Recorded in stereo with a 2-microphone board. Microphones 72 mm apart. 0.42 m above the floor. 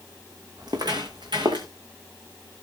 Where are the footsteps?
65° right (ahead or behind), 2 m; by 1.7 s 80° right, 2.5 m.